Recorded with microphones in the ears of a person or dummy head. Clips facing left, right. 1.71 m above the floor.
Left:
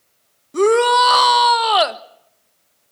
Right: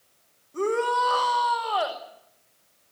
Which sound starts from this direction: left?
A shout, at 0.5 s.